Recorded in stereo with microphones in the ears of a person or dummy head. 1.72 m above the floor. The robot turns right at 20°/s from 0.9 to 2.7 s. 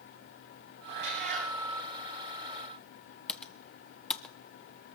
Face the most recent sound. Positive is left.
turn(degrees=5)  # may be behind; listen again after turning